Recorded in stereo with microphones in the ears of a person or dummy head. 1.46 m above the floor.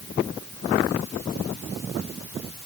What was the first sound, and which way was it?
Only background noise.